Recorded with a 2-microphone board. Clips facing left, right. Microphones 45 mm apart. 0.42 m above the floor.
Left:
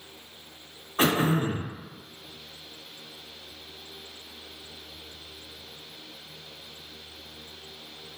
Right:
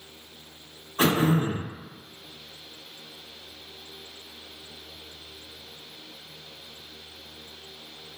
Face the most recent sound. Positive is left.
turn(degrees=30)  # may be behind; listen again after turning